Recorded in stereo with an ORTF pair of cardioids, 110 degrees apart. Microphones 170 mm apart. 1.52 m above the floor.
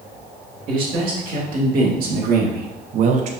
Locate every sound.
0.7 s a man speaking: 60° right, 1.9 m; by 3.3 s 65° right, 0.5 m